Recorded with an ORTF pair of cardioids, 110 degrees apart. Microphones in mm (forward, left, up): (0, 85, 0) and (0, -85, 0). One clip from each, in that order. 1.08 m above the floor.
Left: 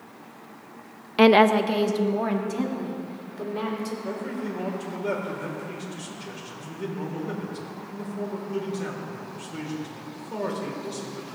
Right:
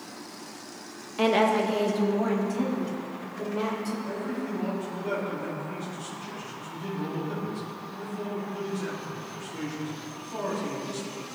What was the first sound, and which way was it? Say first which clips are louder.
A woman speaking: left 6 dB; 45° left.